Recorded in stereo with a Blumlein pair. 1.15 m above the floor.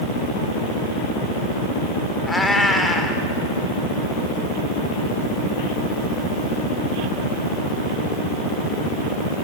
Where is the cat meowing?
10° left, 2 m.